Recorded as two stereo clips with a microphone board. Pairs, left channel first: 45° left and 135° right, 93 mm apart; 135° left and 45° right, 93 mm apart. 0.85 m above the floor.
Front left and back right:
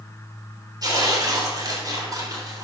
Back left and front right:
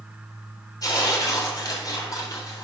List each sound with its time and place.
0.8 s tearing paper: straight behind, 3 m